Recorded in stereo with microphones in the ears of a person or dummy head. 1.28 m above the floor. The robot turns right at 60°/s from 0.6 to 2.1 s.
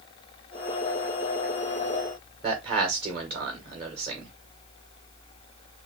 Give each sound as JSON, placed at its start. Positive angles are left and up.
{"t": 2.4, "sound": "a man speaking", "side_deg": -30, "distance_m": 2.5}